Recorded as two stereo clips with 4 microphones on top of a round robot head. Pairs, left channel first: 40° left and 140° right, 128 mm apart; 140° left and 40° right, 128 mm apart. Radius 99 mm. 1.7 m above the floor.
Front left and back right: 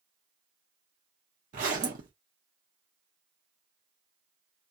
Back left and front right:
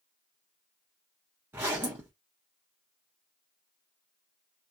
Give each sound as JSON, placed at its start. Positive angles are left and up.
{"t": 1.5, "sound": "a zipper", "azimuth_deg": -115, "distance_m": 0.8}